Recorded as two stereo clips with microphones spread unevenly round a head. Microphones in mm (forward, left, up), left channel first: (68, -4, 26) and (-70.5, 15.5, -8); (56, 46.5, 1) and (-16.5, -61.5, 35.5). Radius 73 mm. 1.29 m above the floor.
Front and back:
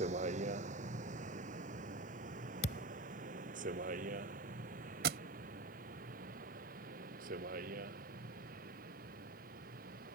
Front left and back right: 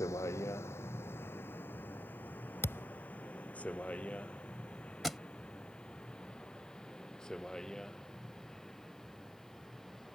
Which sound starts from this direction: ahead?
A thud, at 2.6 s.